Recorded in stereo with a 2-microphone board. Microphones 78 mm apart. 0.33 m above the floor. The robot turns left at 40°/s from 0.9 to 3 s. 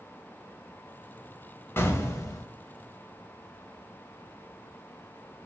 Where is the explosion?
30° left (ahead or behind), 0.5 m; by 2.5 s 50° left (ahead or behind), 0.5 m.